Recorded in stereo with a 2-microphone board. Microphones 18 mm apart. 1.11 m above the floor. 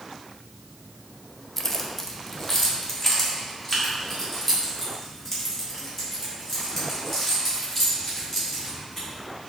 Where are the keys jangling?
15° left (ahead or behind), 0.6 m; by 9.1 s 20° left (ahead or behind), 5.5 m.